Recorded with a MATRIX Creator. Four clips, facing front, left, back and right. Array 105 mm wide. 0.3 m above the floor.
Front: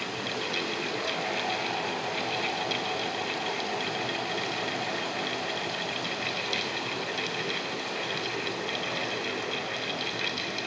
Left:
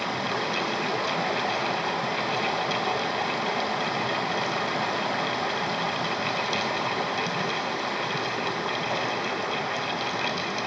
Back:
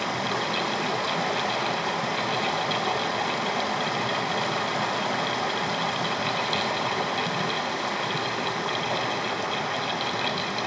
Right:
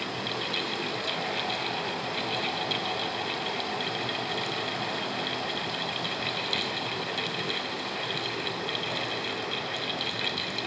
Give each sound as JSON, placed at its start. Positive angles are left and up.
{"t": 0.0, "sound": "running water", "azimuth_deg": 145, "distance_m": 1.1}